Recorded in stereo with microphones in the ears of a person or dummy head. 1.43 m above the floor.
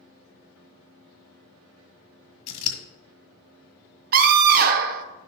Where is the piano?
I don't hear a piano.